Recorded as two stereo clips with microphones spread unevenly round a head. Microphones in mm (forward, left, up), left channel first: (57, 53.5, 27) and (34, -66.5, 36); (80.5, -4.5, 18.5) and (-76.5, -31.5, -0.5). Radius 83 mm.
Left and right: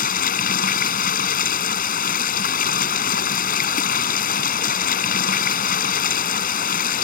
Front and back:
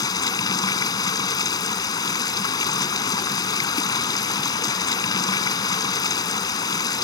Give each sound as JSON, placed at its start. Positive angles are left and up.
{"t": 0.0, "sound": "running water", "azimuth_deg": 80}